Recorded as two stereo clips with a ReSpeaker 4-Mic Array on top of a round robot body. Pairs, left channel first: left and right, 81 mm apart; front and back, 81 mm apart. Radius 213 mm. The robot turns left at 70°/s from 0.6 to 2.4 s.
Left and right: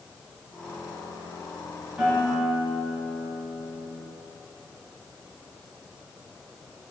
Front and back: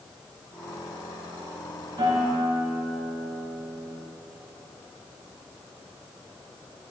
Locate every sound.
2.0 s a guitar: 165° right, 3 m; by 3.9 s 170° left, 3 m